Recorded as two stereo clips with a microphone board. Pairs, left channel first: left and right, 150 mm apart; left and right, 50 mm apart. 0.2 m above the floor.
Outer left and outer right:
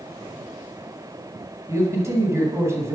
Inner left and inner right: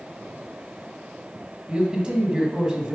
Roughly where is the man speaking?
Right.